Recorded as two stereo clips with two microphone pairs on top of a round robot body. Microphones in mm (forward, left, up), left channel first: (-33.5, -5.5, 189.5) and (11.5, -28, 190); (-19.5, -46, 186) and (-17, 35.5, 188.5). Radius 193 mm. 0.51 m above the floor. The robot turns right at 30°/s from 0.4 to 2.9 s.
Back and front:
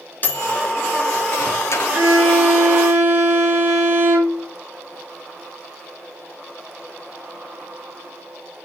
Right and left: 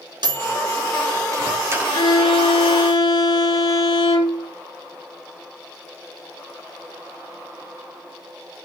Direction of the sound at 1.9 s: 105° right.